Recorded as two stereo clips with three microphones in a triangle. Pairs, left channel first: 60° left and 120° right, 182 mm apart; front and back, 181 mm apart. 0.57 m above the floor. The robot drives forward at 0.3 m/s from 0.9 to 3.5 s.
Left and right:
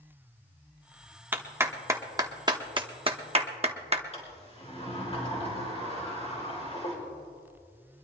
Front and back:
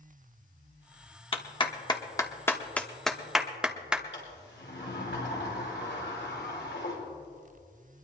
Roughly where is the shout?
No shout in this recording.